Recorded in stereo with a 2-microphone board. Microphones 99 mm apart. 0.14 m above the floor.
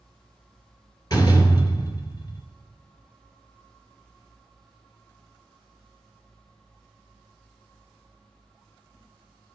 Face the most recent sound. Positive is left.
turn(degrees=45)  # may be behind; listen again after turning